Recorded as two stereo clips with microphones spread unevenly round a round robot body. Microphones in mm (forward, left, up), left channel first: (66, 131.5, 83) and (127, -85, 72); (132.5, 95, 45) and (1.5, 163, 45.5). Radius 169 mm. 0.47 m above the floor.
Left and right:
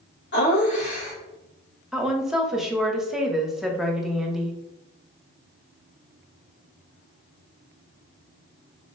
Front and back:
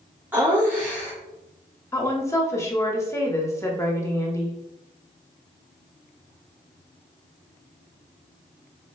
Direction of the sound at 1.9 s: 5° left.